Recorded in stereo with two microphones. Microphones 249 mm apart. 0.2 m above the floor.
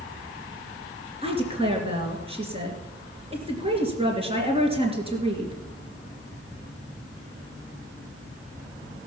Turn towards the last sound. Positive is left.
turn(degrees=-25)  # may be behind; listen again after turning